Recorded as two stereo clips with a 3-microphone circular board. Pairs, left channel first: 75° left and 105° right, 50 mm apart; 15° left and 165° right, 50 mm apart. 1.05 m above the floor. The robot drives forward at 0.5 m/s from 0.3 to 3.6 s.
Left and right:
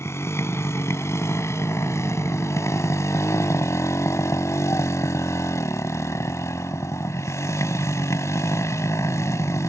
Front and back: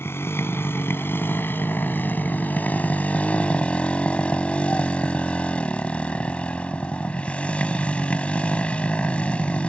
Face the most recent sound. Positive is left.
turn(degrees=80)